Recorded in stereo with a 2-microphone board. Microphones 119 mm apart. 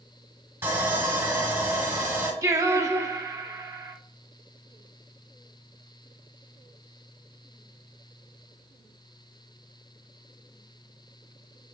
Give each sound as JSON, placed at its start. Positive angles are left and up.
{"t": 0.6, "sound": "sawing", "side_deg": -20, "distance_m": 1.5}
{"t": 2.4, "sound": "singing", "side_deg": -25, "distance_m": 0.6}